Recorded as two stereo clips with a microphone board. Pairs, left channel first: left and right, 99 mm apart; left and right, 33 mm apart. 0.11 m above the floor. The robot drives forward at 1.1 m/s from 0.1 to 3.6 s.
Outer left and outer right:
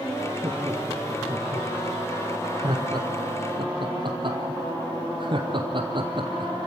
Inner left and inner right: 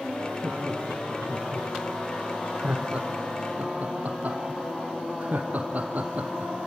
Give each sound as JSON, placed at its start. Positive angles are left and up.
{"t": 0.4, "sound": "laughter", "side_deg": -25, "distance_m": 5.5}